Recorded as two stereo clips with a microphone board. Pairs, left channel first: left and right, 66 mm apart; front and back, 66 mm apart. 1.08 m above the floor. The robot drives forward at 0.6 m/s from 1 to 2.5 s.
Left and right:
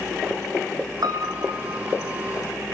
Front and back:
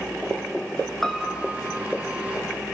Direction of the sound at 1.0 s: 85° right.